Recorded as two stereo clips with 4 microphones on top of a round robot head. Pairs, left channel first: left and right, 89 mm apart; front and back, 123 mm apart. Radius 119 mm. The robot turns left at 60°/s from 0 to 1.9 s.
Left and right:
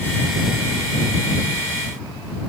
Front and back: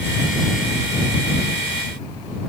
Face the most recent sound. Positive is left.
No sound to turn to.